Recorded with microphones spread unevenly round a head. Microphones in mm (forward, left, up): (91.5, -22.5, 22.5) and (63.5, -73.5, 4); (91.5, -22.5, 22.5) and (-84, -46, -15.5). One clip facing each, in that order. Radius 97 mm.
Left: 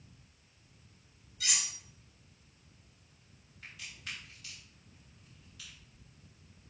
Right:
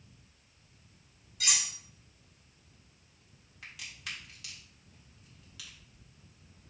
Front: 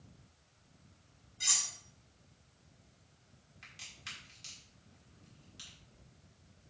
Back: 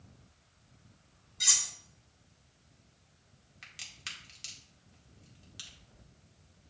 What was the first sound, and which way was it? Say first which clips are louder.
Cutlery clinking: right 3 dB, back 1 dB; 130° right.